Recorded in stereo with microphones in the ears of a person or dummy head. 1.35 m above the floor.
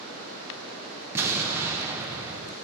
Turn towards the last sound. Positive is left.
turn(degrees=-5)  # may be behind; listen again after turning